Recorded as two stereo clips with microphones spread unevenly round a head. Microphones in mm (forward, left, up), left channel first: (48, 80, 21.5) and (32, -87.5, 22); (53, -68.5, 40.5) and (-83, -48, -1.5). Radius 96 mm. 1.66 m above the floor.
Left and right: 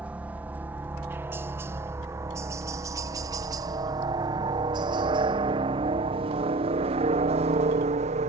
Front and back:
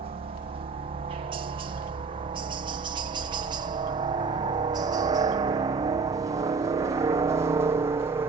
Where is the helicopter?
Straight behind; by 8.3 s 135° right.